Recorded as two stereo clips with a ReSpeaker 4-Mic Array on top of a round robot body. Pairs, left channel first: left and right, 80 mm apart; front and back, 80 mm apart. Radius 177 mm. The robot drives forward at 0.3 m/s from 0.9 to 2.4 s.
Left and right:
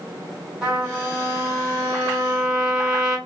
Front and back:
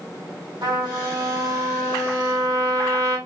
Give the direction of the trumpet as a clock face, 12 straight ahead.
6 o'clock.